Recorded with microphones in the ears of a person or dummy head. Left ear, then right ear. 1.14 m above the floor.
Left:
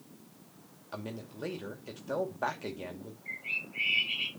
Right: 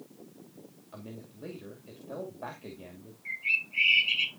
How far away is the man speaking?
About 2 m.